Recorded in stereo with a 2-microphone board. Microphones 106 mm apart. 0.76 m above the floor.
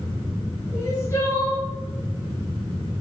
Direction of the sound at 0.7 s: 25° left (ahead or behind).